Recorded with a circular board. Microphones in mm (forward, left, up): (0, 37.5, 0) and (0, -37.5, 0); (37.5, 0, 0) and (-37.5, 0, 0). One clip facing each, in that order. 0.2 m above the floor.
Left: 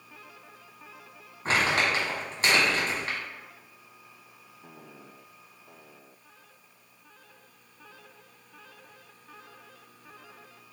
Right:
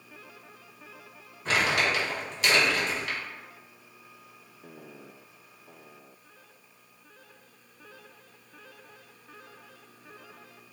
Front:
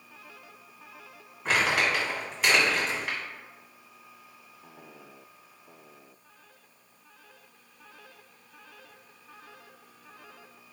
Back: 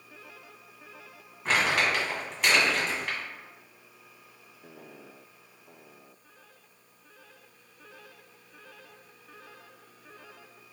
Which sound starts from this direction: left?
Crumpling, at 1.4 s.